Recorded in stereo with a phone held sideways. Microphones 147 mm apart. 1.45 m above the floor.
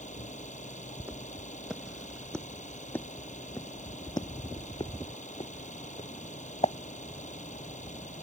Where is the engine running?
60° left (ahead or behind).